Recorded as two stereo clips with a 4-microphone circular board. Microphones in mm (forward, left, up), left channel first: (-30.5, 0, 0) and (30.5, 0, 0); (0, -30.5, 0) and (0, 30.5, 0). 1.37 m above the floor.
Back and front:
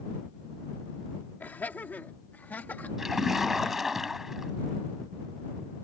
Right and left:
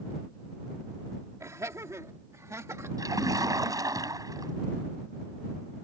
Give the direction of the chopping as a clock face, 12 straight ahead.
I don't hear chopping.